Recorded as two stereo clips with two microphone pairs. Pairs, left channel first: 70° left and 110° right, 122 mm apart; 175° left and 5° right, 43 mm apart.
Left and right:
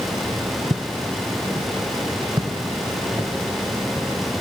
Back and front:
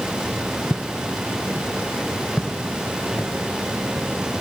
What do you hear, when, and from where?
0.7 s footsteps: 130° right, 1.1 m; by 4.1 s 175° right, 2.5 m